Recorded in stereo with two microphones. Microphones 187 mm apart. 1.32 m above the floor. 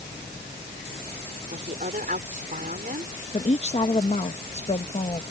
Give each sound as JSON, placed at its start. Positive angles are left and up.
{"t": 1.5, "sound": "a woman speaking", "side_deg": -50}
{"t": 3.3, "sound": "a woman speaking", "side_deg": 35}